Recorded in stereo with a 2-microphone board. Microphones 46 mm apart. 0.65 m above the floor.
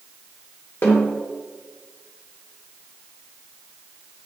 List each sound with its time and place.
0.8 s a snare drum: 55° left (ahead or behind), 1.4 m